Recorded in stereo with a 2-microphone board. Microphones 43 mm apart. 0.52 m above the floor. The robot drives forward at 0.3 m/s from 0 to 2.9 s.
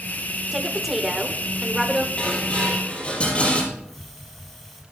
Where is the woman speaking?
10° right (ahead or behind), 1.3 m; by 2.1 s 5° right (ahead or behind), 1.7 m.